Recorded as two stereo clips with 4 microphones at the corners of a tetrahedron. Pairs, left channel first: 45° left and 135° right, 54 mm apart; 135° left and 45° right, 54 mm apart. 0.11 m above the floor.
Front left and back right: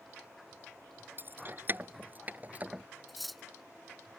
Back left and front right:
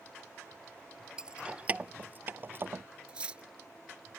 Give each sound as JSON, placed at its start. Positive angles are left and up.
{"t": 1.2, "sound": "keys jangling", "azimuth_deg": -115}
{"t": 3.1, "sound": "cutlery clinking", "azimuth_deg": -45}